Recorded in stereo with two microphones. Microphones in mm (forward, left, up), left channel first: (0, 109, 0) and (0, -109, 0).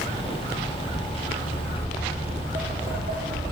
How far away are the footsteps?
About 0.7 m.